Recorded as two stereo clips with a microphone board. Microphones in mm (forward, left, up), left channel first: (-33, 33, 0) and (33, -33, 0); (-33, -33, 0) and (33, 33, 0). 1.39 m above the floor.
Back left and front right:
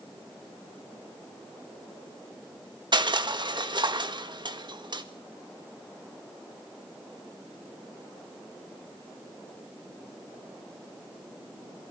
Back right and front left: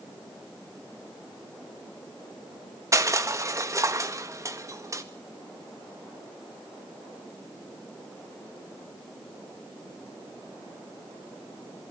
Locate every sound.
2.9 s crushing: 10° right, 1.4 m